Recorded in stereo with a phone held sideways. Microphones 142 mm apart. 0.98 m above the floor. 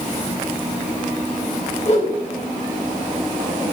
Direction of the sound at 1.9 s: 50° left (ahead or behind).